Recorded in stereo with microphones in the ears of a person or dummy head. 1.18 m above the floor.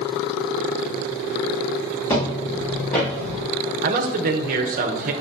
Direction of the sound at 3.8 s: 35° right (ahead or behind).